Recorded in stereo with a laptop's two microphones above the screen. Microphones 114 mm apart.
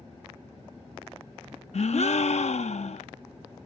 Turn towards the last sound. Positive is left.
turn(degrees=75)  # may be behind; listen again after turning